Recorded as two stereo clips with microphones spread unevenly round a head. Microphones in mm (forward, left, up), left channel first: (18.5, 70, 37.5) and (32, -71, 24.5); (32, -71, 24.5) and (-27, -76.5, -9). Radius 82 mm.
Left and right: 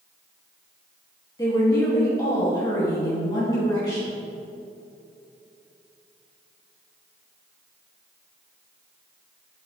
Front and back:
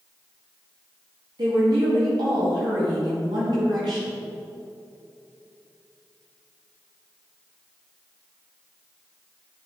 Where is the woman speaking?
165° left, 2 m.